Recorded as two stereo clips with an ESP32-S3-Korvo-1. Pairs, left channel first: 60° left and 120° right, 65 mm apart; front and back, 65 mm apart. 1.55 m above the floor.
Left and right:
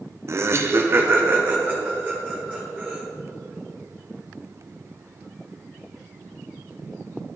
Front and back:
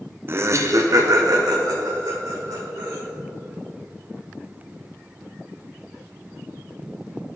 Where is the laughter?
140° right, 0.6 m; by 3.0 s 175° left, 2 m.